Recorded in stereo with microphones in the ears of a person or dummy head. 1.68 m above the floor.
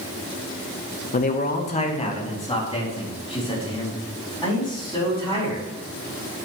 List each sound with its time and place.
1.1 s a man speaking: 45° left (ahead or behind), 1.1 m; by 5.6 s 20° left (ahead or behind), 7 m